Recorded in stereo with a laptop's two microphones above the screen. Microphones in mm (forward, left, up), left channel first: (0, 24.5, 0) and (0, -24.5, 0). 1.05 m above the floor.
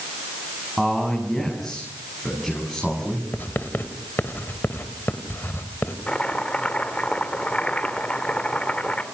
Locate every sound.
0.8 s a man speaking: centre (ahead or behind), 7 m
3.3 s writing: 50° left (ahead or behind), 1.9 m
6.1 s chopping: 25° left (ahead or behind), 3 m